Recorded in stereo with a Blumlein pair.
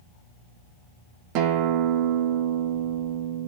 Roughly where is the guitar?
Ahead right.